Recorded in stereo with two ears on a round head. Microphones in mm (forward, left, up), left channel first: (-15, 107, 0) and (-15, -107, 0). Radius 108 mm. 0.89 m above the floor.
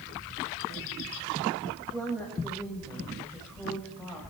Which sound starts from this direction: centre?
A woman speaking, at 1.6 s.